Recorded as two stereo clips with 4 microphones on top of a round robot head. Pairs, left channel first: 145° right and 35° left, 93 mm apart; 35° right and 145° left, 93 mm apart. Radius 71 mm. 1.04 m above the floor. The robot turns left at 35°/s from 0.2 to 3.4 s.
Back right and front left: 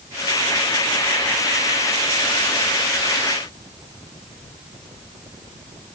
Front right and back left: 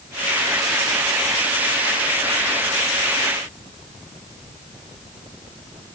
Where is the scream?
No scream in this recording.